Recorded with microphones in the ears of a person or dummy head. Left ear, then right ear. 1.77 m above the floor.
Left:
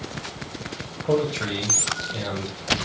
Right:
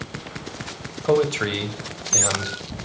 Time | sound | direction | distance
1.1 | a man speaking | 25° right (ahead or behind) | 1.6 m